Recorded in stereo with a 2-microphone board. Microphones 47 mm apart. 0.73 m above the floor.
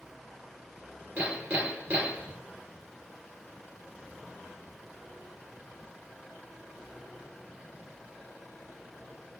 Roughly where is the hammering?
Right.